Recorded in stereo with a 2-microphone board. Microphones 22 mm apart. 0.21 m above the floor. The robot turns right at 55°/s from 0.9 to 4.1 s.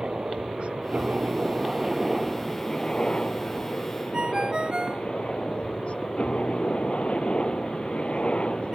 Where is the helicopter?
70° right; by 8.8 s 105° left.